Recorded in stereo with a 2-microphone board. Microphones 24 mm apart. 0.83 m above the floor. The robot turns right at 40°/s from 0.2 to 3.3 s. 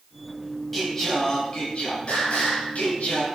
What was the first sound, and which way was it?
Singing, 10° left.